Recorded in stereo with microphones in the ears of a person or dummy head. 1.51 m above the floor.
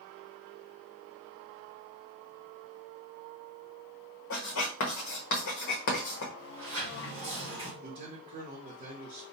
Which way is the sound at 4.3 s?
65° left (ahead or behind).